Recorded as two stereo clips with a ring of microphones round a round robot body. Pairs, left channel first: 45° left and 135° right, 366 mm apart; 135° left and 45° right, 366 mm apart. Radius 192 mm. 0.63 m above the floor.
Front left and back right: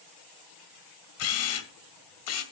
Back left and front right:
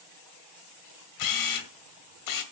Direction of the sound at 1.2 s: 95° left.